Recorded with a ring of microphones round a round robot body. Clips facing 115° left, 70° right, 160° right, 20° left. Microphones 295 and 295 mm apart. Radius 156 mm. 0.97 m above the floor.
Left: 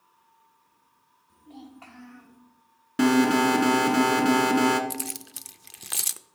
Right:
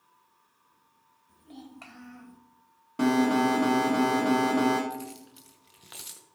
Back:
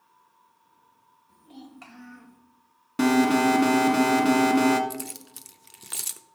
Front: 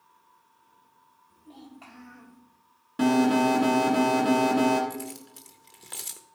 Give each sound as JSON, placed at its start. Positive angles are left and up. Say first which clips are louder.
{"t": 1.3, "sound": "a child speaking", "louder": "left 1 dB, back 2 dB", "azimuth_deg": -105, "distance_m": 2.5}
{"t": 3.0, "sound": "an alarm", "louder": "left 3 dB, back 1 dB", "azimuth_deg": 160, "distance_m": 1.7}
{"t": 4.9, "sound": "keys jangling", "louder": "left 2 dB, even", "azimuth_deg": 130, "distance_m": 0.6}